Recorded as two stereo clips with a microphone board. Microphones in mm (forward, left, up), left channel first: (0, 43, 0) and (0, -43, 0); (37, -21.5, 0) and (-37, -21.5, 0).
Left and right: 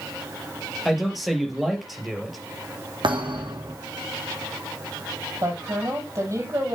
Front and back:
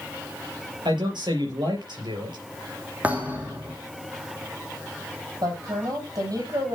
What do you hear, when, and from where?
0.8 s a man speaking: straight behind, 4.5 m
3.0 s a thud: 110° right, 3 m
5.4 s a woman speaking: 145° right, 5.5 m